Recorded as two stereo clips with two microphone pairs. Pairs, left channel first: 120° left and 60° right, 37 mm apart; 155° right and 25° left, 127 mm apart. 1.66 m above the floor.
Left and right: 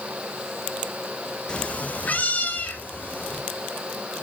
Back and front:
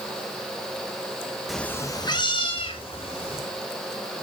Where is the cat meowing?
115° left, 0.8 m; by 3.4 s 165° left, 3.5 m.